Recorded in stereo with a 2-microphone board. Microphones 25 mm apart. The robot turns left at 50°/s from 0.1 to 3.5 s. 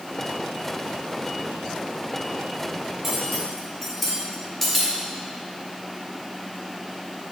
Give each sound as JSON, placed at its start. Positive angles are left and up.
{"t": 3.0, "sound": "cutlery clinking", "side_deg": -15, "distance_m": 2.5}